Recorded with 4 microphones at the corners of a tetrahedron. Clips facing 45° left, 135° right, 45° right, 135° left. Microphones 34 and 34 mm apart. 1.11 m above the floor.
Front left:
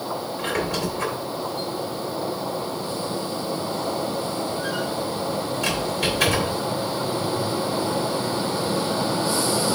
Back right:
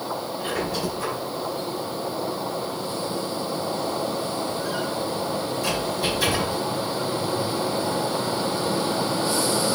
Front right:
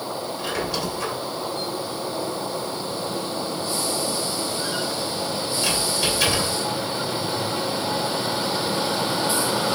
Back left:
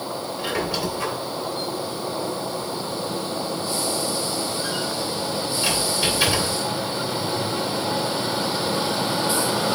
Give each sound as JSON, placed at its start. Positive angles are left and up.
{"t": 0.4, "sound": "a squeak", "azimuth_deg": 60, "distance_m": 2.5}